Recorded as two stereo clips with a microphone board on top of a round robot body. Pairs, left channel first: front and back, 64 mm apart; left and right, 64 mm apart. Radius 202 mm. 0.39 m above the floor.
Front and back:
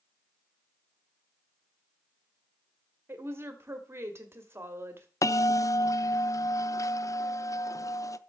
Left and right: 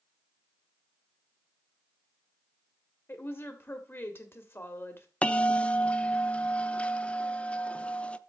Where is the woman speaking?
135° left, 1.8 m.